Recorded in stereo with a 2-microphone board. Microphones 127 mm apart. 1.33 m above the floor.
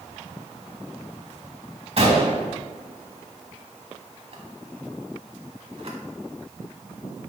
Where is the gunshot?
50° right (ahead or behind), 1.3 m.